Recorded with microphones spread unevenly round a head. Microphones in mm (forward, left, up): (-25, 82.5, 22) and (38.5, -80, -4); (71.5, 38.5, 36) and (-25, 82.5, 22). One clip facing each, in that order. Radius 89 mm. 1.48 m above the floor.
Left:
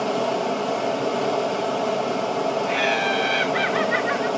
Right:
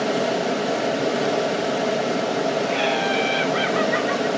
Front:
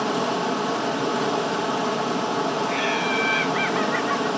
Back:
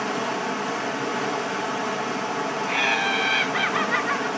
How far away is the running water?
About 0.8 m.